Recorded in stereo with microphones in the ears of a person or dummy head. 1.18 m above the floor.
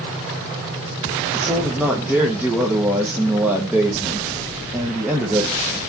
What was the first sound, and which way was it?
A man speaking, 10° right (ahead or behind).